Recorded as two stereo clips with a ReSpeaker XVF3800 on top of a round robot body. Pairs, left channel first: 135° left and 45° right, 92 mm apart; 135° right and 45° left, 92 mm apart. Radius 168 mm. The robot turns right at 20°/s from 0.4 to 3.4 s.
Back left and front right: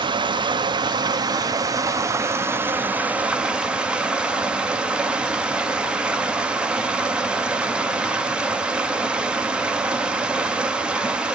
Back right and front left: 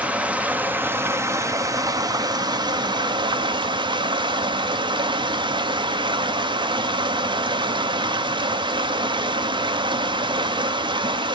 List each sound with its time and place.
0.0 s running water: 30° right, 0.7 m; by 11.4 s 30° left, 0.7 m